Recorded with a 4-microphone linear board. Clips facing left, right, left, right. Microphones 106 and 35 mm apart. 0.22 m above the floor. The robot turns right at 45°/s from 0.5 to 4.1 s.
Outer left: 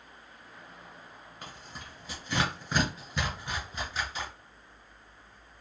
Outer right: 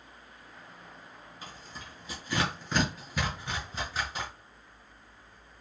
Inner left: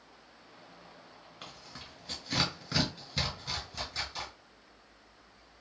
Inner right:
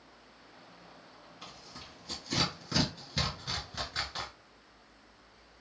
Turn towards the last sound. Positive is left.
turn(degrees=-45)  # may be behind; listen again after turning